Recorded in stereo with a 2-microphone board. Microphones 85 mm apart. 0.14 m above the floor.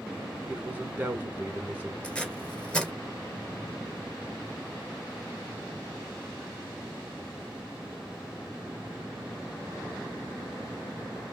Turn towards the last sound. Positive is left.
turn(degrees=10)  # may be behind; listen again after turning